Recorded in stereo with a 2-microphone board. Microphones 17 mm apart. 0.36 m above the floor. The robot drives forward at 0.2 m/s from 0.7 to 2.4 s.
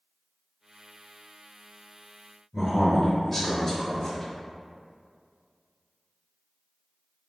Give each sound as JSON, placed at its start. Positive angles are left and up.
{"t": 2.5, "sound": "a man speaking", "side_deg": 20, "distance_m": 0.9}